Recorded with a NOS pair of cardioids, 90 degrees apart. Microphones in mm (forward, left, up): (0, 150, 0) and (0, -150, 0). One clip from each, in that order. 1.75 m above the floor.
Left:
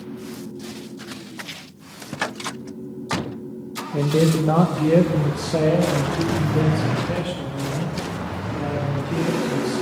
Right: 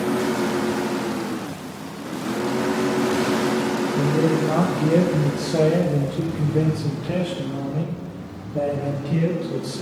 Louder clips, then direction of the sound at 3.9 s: Left 3 dB; 50° left.